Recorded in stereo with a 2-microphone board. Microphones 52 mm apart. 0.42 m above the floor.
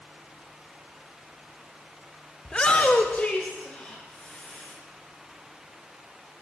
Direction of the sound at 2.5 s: 15° left (ahead or behind).